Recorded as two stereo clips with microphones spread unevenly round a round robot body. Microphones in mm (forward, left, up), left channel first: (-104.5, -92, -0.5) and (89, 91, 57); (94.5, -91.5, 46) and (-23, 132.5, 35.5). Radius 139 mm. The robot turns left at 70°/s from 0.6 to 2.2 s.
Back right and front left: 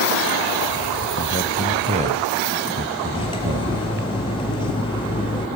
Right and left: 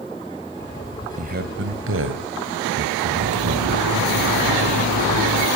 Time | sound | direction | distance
1.2 | a man speaking | 170° left | 1.8 m
3.1 | cutlery clinking | 150° left | 4 m